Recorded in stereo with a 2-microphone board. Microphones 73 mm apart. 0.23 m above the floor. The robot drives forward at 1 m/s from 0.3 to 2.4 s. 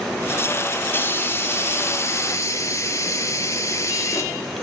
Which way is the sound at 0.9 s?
30° left (ahead or behind).